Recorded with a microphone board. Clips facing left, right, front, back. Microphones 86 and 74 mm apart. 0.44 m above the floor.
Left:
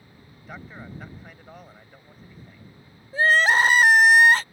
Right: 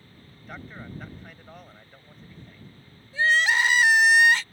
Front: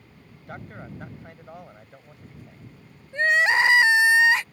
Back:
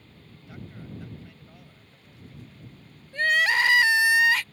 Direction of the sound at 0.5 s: 5° left.